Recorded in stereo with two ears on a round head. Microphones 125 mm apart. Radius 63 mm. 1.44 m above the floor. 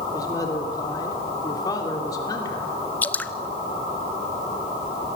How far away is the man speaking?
About 3 m.